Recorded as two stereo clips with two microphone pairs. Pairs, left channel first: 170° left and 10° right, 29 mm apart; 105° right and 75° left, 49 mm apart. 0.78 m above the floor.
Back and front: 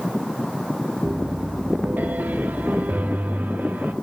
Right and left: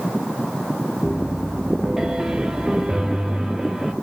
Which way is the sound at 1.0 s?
Straight ahead.